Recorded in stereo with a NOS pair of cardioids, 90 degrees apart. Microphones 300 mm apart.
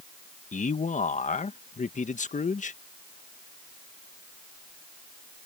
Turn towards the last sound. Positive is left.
turn(degrees=25)